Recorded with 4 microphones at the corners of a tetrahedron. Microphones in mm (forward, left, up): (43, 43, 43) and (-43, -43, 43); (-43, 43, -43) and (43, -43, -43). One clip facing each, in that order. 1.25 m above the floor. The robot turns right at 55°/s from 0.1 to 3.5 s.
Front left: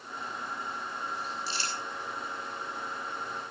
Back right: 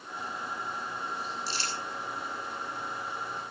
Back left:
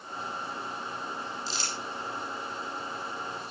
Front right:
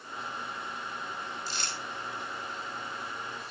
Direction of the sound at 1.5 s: 90° right.